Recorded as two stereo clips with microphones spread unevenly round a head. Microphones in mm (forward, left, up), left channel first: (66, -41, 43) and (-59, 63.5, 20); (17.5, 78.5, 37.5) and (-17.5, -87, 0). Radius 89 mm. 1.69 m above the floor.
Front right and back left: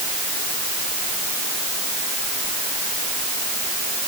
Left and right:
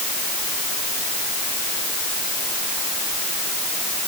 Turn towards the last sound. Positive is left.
No sound to turn to.